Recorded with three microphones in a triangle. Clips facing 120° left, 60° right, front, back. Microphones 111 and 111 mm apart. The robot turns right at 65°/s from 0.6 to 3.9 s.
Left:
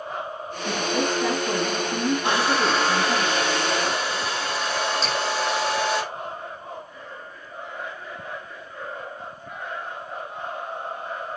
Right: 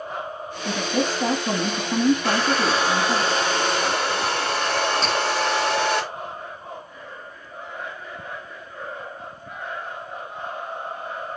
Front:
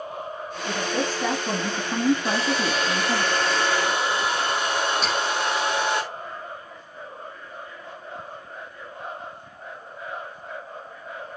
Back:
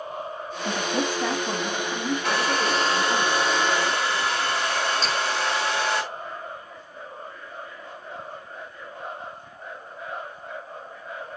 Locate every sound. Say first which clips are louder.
0.7 s a woman speaking: right 1 dB, even; 130° right, 1.9 m; by 3.2 s 40° left, 1.9 m
2.2 s a hair dryer: even, even; 175° right, 3 m; by 6.0 s 65° right, 3 m
5.0 s dripping: right 3 dB, front 1 dB; 30° right, 5.5 m